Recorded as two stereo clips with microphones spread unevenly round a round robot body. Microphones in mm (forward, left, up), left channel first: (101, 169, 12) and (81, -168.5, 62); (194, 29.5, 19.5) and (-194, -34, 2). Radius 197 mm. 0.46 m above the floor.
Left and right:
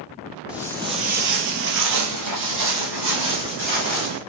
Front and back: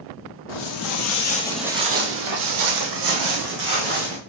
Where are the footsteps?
10° right, 1.0 m; by 4.2 s 140° right, 2.5 m.